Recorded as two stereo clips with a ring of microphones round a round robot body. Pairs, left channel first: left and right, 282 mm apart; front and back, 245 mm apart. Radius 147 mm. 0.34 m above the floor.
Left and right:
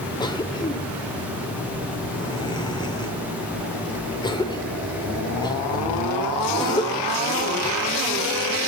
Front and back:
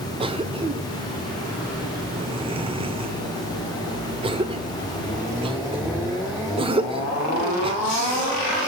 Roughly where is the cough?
Behind left.